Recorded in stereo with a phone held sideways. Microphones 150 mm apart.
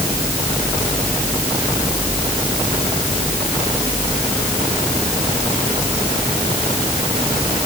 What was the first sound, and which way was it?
Only background noise.